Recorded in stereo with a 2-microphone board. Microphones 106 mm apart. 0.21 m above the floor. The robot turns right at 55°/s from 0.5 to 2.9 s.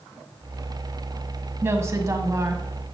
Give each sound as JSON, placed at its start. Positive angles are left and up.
{"t": 1.6, "sound": "a woman speaking", "azimuth_deg": -125, "distance_m": 1.2}